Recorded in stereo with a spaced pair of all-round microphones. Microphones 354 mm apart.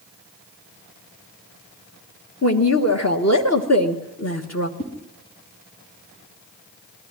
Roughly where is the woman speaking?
Left.